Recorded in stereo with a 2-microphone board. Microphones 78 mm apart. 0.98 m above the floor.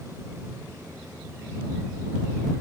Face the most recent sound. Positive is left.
No sound to turn to.